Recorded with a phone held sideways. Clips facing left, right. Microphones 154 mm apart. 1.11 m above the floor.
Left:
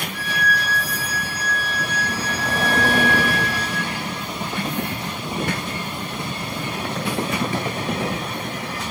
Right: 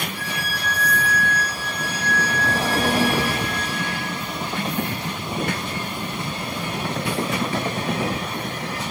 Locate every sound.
0.1 s a violin: 30° right (ahead or behind), 5.5 m